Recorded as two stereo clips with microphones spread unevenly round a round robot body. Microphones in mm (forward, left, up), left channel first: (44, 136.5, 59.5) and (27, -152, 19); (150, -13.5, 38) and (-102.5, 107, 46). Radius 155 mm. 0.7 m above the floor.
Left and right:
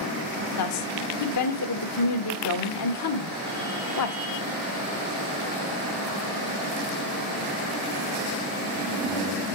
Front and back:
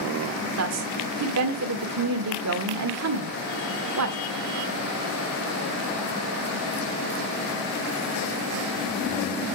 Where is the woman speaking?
125° left, 1.9 m.